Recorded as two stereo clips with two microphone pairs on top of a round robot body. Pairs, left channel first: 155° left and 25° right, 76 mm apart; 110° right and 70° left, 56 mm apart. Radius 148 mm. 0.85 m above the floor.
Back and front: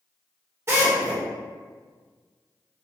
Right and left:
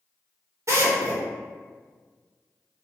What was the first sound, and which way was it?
A drill, 35° left.